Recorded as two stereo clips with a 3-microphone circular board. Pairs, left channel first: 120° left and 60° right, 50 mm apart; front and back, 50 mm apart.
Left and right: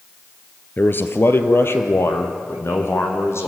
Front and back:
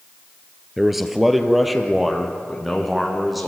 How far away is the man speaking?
About 1.8 m.